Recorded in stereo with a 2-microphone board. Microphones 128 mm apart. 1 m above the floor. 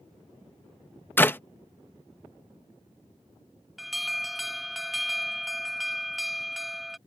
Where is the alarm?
Centre (ahead or behind).